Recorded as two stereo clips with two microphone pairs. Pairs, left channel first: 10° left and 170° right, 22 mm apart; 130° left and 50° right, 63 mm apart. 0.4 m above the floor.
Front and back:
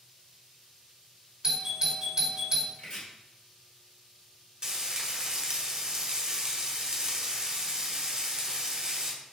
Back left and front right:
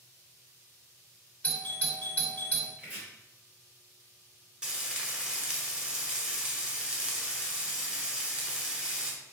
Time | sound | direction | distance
1.4 | a doorbell | 175° left | 1.4 m
2.8 | chopping | 5° left | 1.9 m
4.6 | frying | 125° right | 0.9 m